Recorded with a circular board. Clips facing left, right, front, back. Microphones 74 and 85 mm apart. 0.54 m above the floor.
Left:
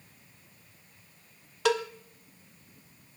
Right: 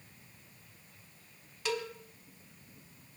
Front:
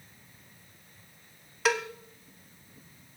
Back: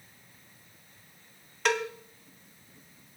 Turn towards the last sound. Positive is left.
turn(degrees=85)